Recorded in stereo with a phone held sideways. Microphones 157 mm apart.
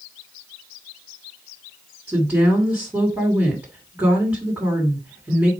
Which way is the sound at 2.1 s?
15° right (ahead or behind).